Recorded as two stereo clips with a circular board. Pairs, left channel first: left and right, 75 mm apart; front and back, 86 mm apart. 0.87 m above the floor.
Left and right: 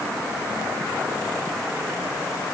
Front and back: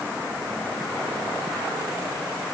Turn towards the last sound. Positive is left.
No sound to turn to.